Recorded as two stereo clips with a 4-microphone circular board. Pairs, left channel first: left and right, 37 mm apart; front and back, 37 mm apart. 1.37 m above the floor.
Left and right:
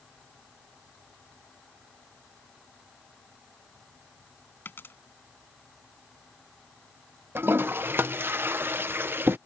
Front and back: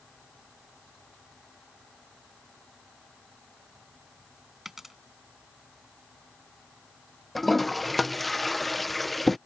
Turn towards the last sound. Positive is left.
turn(degrees=-85)